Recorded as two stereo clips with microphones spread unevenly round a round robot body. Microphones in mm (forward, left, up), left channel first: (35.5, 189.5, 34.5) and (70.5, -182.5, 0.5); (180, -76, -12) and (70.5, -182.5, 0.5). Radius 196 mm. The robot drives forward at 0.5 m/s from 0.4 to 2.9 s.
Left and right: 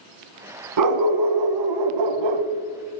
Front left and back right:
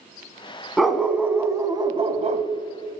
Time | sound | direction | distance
0.8 | a dog barking | 45° right | 1.2 m